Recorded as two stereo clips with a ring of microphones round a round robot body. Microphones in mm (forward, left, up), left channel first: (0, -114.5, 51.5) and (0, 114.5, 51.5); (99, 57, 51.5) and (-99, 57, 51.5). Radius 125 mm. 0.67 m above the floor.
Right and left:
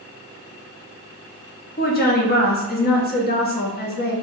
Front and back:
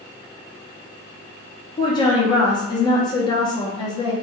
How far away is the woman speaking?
About 0.7 m.